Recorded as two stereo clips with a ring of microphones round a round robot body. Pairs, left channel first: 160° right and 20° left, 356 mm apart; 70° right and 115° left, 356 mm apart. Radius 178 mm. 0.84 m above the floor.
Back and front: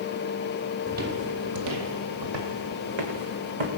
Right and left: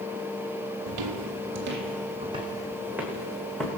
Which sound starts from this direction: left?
Footsteps, at 0.9 s.